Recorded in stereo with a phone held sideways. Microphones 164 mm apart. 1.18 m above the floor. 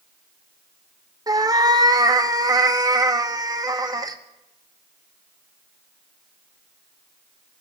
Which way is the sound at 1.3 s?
20° right (ahead or behind).